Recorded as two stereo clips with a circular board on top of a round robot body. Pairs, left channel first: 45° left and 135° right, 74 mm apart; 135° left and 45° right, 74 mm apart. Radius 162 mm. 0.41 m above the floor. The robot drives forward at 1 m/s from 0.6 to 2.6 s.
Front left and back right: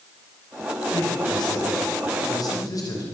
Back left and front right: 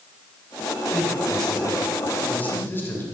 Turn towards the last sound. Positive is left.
turn(degrees=75)